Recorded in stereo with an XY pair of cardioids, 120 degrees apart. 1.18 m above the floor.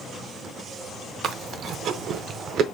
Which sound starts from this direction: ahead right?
Chewing, at 1.2 s.